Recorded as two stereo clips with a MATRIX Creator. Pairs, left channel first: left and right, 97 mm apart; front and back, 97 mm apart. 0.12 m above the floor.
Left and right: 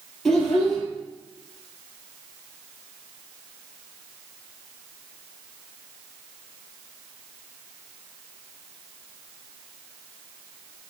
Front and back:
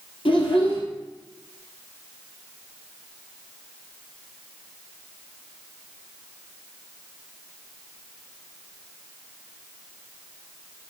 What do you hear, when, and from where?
0.2 s a child speaking: 5° left, 2 m